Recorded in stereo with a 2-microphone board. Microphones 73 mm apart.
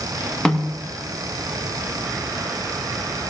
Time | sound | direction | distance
0.5 | a snare drum | 10° left (ahead or behind) | 1.2 m